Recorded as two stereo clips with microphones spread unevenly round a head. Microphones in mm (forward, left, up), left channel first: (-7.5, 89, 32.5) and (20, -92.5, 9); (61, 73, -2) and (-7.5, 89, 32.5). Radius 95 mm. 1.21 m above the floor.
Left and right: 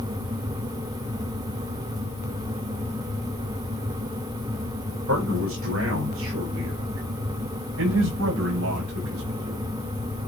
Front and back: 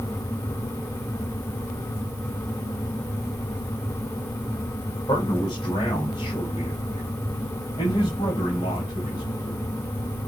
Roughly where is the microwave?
I don't hear a microwave.